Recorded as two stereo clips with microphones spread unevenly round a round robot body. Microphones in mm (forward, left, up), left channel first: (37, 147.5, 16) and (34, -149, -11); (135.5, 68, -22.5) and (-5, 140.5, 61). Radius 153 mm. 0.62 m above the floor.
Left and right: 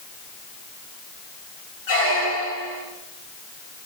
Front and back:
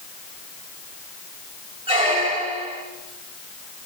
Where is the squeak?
105° left, 4.5 m.